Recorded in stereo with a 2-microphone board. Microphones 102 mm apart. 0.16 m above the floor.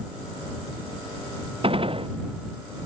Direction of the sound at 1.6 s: 60° right (ahead or behind).